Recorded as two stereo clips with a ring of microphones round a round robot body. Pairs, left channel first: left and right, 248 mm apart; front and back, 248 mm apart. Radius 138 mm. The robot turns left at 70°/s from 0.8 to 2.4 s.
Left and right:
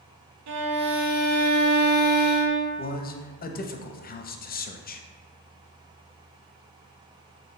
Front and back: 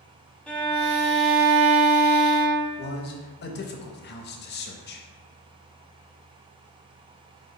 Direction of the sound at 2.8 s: 40° left.